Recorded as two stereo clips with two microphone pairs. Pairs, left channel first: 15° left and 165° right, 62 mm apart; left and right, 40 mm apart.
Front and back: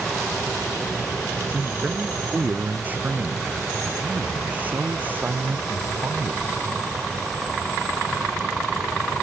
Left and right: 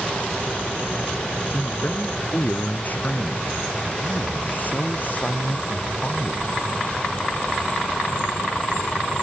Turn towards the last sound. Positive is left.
turn(degrees=135)